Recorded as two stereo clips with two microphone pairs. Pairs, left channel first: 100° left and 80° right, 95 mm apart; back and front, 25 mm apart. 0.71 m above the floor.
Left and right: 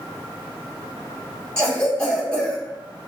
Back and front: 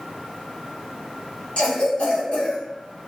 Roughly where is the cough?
Behind.